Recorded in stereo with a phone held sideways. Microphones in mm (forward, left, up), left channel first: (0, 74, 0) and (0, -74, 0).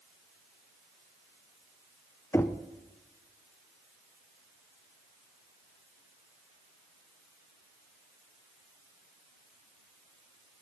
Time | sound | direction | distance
2.3 | knocking | 15° left (ahead or behind) | 0.6 m